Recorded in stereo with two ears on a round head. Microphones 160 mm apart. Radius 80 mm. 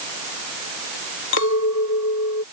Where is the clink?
80° left.